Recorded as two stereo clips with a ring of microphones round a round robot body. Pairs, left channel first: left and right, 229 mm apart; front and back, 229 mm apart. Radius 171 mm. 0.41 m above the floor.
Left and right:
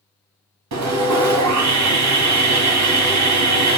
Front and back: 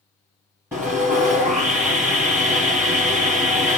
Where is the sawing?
95° right, 0.7 m.